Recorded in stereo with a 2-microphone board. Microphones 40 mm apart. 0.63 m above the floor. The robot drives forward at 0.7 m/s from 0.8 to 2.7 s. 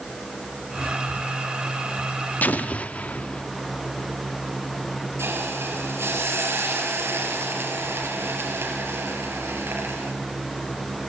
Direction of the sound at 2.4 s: 45° left (ahead or behind).